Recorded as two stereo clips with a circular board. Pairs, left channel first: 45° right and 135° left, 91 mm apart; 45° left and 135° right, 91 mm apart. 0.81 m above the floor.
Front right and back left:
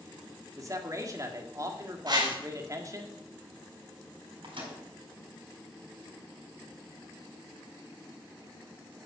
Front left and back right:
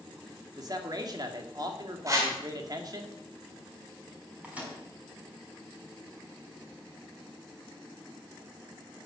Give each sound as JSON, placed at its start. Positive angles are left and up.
{"t": 0.6, "sound": "a man speaking", "azimuth_deg": -175, "distance_m": 2.0}
{"t": 2.1, "sound": "a whoosh", "azimuth_deg": 170, "distance_m": 3.0}
{"t": 4.4, "sound": "a microwave", "azimuth_deg": 150, "distance_m": 5.0}